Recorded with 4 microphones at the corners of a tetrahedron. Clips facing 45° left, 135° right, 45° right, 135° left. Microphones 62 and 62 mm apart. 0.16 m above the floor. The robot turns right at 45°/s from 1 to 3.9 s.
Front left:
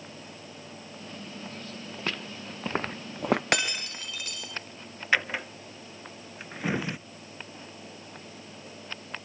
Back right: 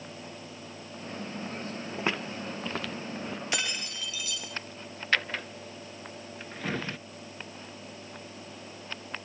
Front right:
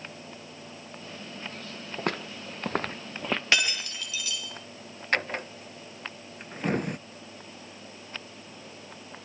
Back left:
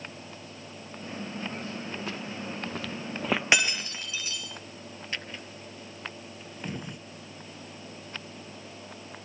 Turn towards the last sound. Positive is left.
turn(degrees=-30)